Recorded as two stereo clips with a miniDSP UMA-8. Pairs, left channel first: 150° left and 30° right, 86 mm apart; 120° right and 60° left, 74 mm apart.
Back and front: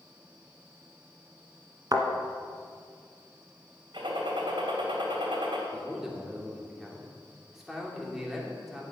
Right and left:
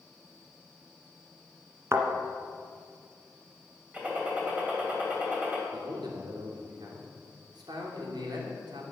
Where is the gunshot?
15° right, 3 m.